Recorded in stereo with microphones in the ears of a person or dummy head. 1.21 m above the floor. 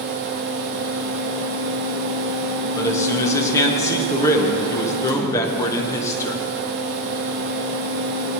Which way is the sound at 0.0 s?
50° right (ahead or behind).